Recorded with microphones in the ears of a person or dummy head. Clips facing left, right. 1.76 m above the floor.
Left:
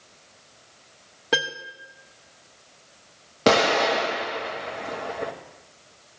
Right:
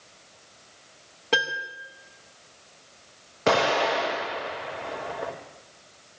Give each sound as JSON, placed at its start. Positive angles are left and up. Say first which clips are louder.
{"t": 1.3, "sound": "a piano", "louder": "left 1 dB", "side_deg": 10, "distance_m": 0.7}
{"t": 3.5, "sound": "an explosion", "louder": "left 3 dB", "side_deg": 50, "distance_m": 1.6}